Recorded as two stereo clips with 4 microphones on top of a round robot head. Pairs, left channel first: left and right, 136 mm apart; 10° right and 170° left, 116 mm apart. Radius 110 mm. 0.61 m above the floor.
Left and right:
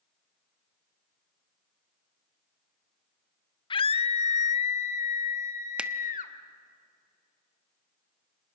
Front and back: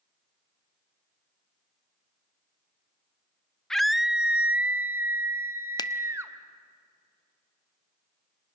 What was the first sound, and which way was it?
A scream, 75° left.